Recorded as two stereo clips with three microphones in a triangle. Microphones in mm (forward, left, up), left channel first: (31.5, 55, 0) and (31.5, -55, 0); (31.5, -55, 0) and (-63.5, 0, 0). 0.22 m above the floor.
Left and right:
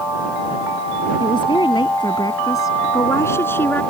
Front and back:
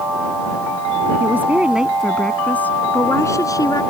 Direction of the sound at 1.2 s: 90° left.